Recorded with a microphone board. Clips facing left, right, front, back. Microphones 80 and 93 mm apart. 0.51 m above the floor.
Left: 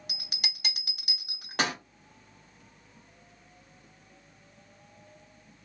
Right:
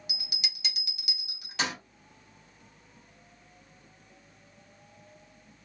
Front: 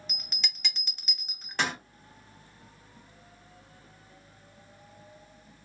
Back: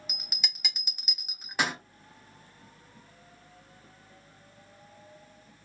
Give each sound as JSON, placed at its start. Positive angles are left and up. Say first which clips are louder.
{"t": 0.1, "sound": "a bell", "louder": "left 3 dB, even", "azimuth_deg": 100, "distance_m": 0.8}